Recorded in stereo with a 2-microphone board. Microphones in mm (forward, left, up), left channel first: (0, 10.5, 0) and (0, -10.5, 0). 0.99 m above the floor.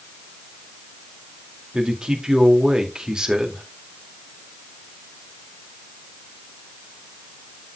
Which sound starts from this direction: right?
A man speaking, at 1.7 s.